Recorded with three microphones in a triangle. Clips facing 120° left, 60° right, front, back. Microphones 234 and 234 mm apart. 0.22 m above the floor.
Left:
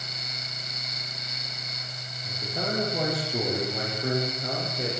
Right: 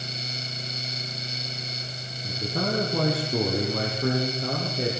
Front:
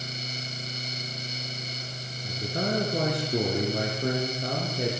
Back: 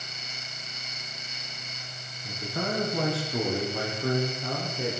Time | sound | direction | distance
2.2 | a man speaking | 50° right | 8 m